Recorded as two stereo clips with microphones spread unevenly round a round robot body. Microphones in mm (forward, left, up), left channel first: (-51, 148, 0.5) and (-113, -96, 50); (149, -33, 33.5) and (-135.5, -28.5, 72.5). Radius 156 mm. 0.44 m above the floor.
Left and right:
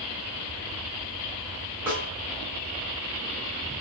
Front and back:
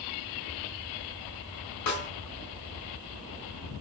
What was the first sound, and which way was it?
A snare drum, 20° right.